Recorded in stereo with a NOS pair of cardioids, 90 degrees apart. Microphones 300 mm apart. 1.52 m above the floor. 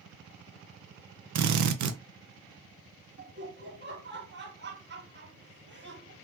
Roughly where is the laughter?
Ahead right.